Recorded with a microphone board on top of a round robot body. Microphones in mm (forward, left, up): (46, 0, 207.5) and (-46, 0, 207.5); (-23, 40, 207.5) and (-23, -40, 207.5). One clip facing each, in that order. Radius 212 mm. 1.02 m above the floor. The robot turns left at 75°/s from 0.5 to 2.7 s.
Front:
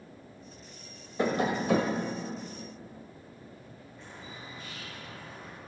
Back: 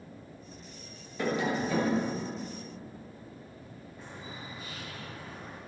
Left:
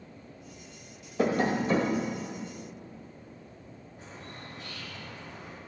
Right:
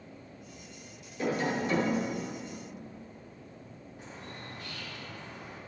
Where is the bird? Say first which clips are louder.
Back 2 dB, even; 95° left, 3.5 m.